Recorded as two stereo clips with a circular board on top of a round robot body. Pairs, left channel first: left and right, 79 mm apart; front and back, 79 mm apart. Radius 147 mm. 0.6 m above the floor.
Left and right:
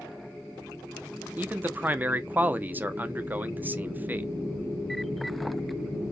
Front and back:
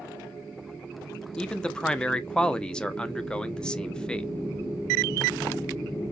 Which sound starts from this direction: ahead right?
A man speaking, at 1.4 s.